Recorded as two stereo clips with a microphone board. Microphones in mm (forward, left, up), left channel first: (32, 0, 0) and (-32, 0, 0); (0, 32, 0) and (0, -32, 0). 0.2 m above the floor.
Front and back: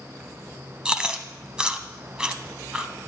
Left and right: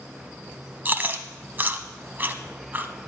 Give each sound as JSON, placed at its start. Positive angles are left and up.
{"t": 0.8, "sound": "chewing", "azimuth_deg": -115, "distance_m": 0.8}